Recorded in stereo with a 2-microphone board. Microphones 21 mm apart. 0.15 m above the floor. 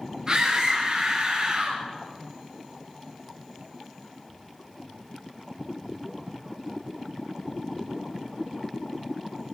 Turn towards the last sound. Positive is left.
turn(degrees=-35)  # may be behind; listen again after turning